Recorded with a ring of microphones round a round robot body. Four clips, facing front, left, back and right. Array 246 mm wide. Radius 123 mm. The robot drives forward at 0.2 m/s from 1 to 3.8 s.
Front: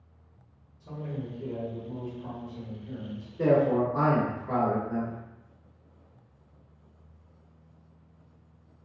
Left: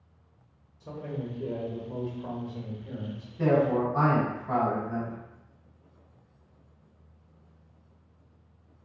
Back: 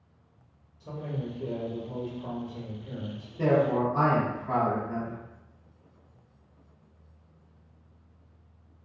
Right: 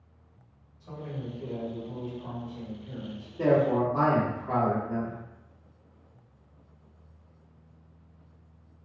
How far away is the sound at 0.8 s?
About 1.1 m.